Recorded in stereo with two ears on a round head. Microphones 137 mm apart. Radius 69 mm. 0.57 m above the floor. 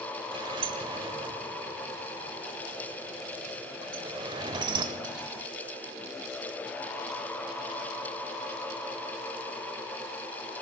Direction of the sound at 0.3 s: 30° right (ahead or behind).